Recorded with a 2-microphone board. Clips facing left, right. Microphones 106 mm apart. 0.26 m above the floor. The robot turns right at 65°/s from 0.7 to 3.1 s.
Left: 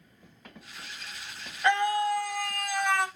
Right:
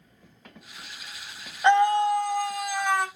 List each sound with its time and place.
1.6 s a scream: 100° right, 1.1 m; by 3.1 s 5° right, 1.1 m